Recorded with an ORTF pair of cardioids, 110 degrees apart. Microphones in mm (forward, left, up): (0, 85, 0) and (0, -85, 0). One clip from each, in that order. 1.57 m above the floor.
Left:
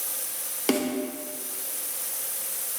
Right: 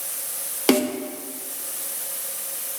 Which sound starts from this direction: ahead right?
A snare drum, at 0.7 s.